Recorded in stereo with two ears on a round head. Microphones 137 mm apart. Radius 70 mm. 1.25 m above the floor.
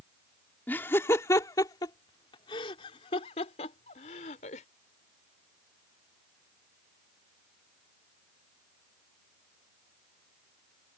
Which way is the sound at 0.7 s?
15° left (ahead or behind).